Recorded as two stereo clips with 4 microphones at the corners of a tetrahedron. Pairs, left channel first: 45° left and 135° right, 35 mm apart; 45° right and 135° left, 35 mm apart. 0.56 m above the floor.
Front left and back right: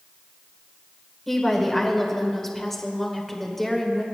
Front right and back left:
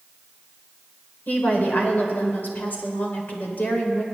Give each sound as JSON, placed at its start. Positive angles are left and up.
{"t": 1.3, "sound": "a woman speaking", "azimuth_deg": -40, "distance_m": 1.8}